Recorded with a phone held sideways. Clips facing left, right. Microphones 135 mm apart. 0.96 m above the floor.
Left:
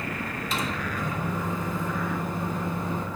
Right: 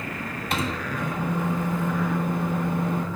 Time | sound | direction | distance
0.5 | a microwave | 60° right (ahead or behind) | 0.7 m